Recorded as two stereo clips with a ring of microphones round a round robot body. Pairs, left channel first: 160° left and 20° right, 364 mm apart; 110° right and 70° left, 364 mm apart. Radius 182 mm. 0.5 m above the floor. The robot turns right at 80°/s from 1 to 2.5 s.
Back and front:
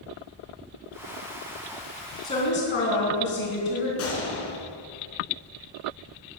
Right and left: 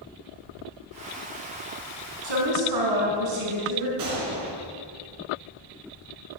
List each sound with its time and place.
2.2 s a woman speaking: 75° left, 4 m; by 3.9 s 100° left, 4 m
4.0 s a gunshot: 105° left, 3 m